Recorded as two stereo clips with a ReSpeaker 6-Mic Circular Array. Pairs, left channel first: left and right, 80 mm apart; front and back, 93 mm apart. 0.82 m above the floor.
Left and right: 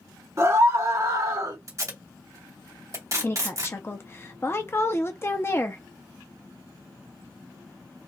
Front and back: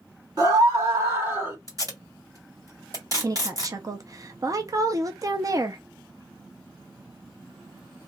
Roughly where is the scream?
Behind right.